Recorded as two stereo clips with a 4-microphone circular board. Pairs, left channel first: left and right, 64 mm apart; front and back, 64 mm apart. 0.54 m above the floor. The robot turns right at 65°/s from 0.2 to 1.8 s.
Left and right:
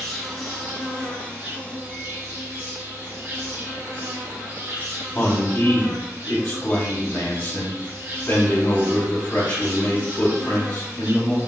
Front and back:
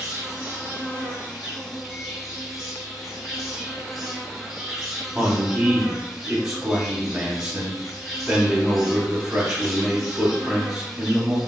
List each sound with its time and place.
0.0 s an insect: 165° left, 1.3 m; by 11.5 s 90° right, 1.3 m
5.2 s a man speaking: 110° left, 0.9 m